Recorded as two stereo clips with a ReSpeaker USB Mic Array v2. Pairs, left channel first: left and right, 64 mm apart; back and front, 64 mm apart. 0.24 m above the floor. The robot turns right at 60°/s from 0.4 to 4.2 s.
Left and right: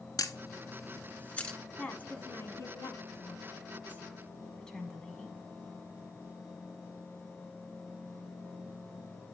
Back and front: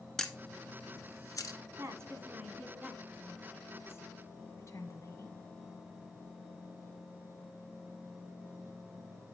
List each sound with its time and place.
0.2 s a camera shutter: 95° left, 0.8 m; by 1.6 s 165° left, 0.8 m
1.8 s a woman speaking: 20° left, 1.6 m; by 5.4 s 165° left, 1.6 m